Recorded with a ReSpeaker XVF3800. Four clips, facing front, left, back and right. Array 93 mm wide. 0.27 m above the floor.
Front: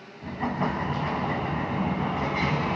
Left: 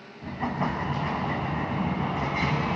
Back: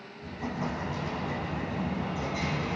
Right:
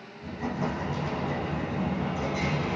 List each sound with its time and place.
0.2 s an explosion: 45° left, 2 m